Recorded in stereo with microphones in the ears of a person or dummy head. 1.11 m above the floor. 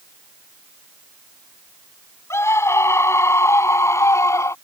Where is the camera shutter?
I don't hear a camera shutter.